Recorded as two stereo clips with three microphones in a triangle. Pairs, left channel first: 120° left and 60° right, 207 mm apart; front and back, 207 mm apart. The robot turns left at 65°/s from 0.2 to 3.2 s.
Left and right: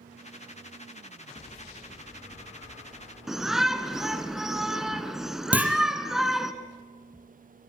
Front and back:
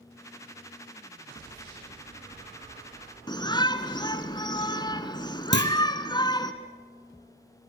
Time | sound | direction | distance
3.3 | a shout | 25° left | 1.3 m
5.5 | a clunk | 20° left | 3.5 m